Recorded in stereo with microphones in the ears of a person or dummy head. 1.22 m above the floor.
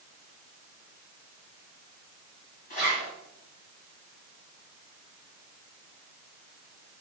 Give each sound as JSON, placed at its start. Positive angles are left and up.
{"t": 2.7, "sound": "a zipper", "side_deg": 45, "distance_m": 1.2}